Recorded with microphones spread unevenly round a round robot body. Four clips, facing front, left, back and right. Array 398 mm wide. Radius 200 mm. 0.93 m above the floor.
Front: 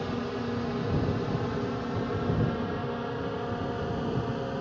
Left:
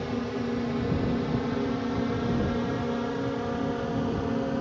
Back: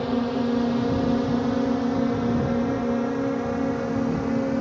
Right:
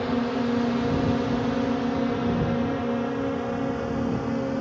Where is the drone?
145° right; by 4.6 s 170° right.